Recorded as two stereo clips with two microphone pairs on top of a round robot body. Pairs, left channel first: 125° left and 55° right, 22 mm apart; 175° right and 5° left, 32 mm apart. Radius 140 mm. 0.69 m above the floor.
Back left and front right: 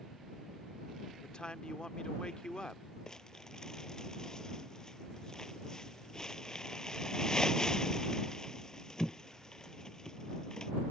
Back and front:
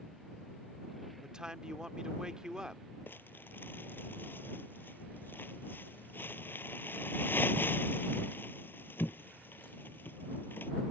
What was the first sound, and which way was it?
A man speaking, 75° left.